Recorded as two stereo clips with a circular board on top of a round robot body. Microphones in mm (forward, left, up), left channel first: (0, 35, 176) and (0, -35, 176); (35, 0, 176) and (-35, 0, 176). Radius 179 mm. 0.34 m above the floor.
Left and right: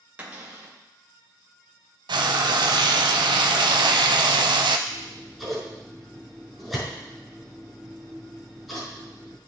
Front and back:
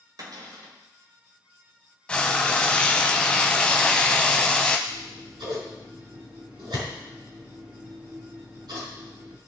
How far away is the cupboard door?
About 2.5 m.